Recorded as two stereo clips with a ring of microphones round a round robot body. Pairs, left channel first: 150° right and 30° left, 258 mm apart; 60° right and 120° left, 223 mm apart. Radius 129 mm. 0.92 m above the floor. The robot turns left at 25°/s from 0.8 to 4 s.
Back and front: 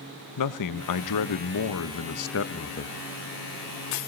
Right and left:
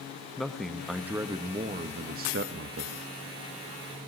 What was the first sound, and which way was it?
A man speaking, 150° right.